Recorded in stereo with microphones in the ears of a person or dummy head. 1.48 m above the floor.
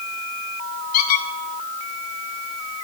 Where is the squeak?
50° left (ahead or behind), 1.4 m.